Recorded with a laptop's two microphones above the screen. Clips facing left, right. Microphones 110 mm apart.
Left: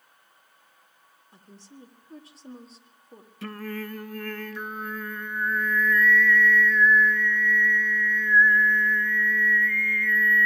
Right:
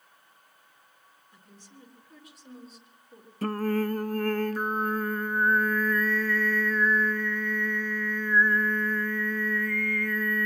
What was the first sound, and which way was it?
A woman speaking, 35° left (ahead or behind).